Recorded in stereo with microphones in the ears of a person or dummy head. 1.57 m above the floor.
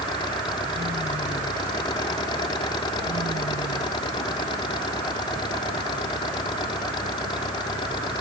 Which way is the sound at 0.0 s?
20° left (ahead or behind).